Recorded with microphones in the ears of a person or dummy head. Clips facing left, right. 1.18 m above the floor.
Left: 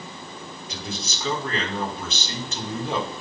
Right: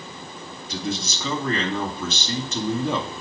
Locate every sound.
0.7 s a man speaking: 80° right, 2 m